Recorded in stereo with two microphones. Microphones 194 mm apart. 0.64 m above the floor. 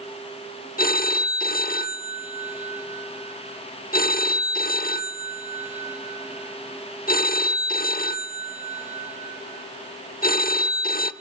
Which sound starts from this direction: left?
A phone ringing, at 0.8 s.